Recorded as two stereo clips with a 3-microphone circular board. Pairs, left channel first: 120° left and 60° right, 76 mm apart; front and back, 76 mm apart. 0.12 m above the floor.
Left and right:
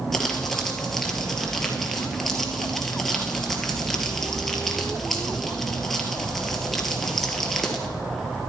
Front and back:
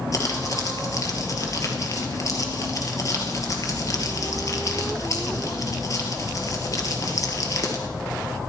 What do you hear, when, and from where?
0.1 s crumpling: 35° left, 1.9 m